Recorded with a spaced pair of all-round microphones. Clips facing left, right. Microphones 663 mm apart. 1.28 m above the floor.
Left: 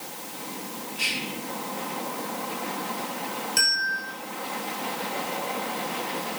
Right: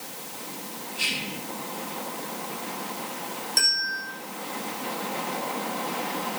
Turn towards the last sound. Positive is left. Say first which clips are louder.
# left 2 dB
turn(degrees=50)  # may be behind; listen again after turning